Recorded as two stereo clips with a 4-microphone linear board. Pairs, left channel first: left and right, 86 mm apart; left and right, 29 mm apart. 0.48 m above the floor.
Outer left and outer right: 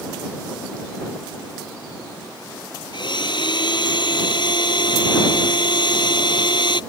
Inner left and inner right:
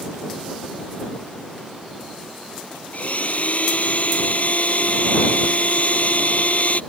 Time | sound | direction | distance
2.9 | a blender | 65° left (ahead or behind) | ?